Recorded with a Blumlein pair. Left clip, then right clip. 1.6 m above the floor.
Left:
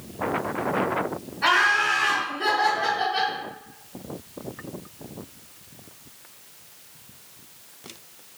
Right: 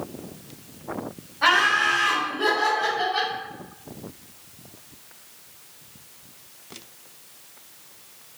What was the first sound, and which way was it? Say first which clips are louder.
Laughter: right 1 dB; 55° right.